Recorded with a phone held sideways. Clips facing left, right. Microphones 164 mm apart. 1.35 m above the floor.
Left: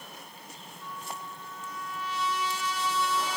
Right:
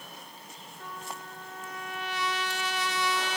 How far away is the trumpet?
About 0.9 m.